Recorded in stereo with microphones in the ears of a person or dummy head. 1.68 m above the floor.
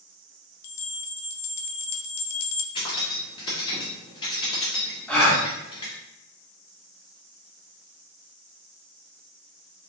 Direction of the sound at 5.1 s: 10° left (ahead or behind).